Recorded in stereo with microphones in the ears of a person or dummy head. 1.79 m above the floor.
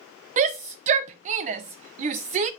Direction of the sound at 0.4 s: 45° right (ahead or behind).